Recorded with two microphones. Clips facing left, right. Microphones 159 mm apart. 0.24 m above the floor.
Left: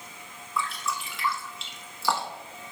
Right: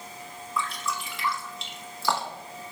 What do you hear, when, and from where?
0.6 s dripping: centre (ahead or behind), 1.0 m